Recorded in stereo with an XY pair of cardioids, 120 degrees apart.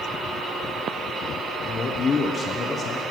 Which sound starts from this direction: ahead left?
A man speaking, at 1.6 s.